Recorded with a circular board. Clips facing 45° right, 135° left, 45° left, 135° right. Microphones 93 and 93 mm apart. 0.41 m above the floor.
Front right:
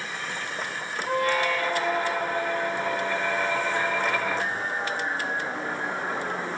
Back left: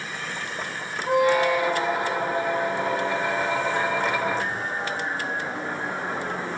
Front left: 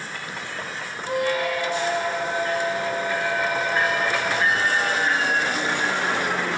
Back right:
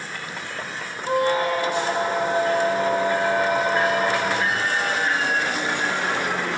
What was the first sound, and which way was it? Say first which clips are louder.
A squeak: back left 5 dB, back right 3 dB; 160° right.